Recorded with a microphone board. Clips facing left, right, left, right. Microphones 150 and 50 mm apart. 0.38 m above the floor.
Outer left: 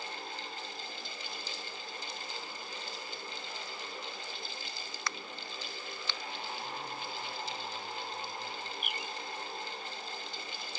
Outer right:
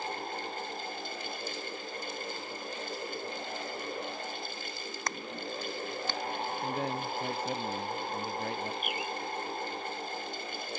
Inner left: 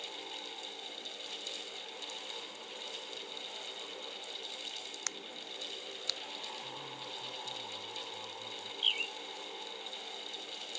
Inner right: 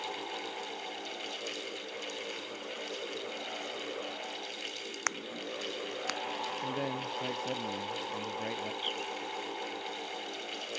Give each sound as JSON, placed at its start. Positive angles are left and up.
{"t": 5.1, "sound": "a crack", "side_deg": -45}
{"t": 6.6, "sound": "a man speaking", "side_deg": -80}
{"t": 8.8, "sound": "a bird", "side_deg": 50}